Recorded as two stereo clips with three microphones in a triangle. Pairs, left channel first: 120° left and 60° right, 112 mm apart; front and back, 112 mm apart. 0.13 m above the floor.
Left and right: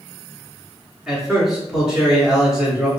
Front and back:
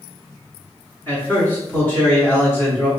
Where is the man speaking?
15° left, 1.0 m.